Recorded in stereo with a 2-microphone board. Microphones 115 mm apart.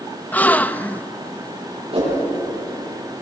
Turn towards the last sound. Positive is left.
turn(degrees=-55)  # may be behind; listen again after turning